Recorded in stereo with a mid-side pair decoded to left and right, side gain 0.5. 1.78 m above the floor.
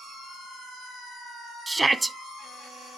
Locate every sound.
1.7 s a shout: 15° right, 0.6 m